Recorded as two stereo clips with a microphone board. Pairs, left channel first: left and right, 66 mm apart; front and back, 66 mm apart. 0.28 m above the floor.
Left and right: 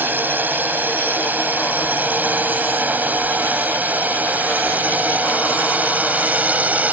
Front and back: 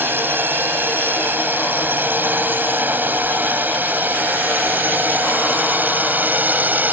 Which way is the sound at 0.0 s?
140° right.